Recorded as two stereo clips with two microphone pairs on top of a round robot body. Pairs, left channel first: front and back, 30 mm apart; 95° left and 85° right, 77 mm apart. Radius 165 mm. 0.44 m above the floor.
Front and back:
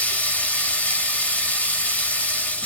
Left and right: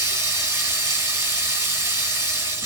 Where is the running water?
30° right, 2.0 m.